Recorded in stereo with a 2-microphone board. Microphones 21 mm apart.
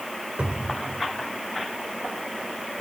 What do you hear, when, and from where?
0.4 s a cupboard door: 70° right (ahead or behind), 3 m